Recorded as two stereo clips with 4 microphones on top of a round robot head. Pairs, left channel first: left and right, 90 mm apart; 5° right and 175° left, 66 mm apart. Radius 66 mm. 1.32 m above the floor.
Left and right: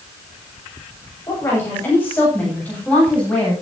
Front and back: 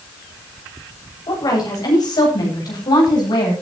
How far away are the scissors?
I don't hear scissors.